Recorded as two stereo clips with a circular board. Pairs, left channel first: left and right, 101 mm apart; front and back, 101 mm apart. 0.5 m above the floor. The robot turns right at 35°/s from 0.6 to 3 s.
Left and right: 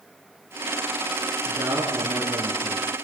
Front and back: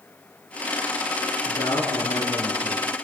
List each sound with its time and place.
1.4 s a man speaking: 35° right, 6 m; by 3.1 s 20° left, 6 m